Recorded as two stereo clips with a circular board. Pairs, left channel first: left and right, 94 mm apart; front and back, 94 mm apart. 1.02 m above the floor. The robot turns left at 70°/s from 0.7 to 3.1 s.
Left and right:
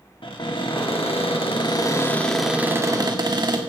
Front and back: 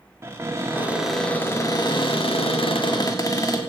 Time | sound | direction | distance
0.2 | a cupboard door | 120° left | 1.5 m